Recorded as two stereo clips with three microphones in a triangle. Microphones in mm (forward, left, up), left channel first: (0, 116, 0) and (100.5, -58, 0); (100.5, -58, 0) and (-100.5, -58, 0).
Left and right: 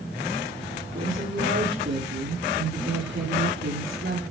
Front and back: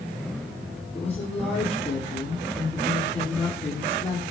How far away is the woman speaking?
About 8.5 m.